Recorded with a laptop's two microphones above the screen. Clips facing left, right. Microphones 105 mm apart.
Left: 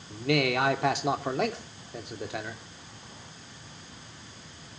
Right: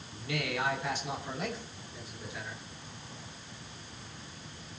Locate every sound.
0.1 s a man speaking: 80° left, 2.5 m